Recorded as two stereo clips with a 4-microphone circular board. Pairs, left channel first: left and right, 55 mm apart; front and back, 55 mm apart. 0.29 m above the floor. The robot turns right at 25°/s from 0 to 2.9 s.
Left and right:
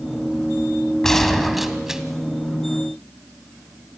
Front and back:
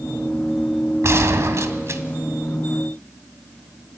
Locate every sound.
1.0 s a gunshot: 170° left, 1.6 m; by 2.0 s 165° right, 1.6 m